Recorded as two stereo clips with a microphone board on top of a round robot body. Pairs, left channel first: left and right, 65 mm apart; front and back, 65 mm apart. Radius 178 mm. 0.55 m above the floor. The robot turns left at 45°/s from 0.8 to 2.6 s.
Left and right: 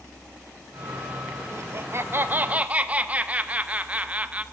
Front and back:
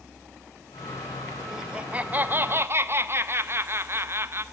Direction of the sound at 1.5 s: 100° right.